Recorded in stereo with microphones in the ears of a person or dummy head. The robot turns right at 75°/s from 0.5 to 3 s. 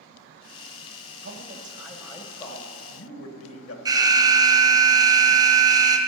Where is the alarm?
20° right (ahead or behind), 1.0 m.